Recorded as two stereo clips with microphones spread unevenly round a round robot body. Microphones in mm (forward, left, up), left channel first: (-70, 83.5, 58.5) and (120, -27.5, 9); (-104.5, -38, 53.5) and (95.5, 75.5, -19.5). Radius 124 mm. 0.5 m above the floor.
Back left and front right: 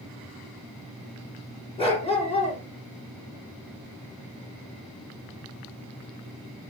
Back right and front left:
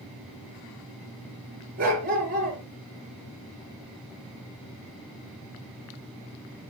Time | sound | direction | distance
1.8 | a dog barking | 85° left | 3 m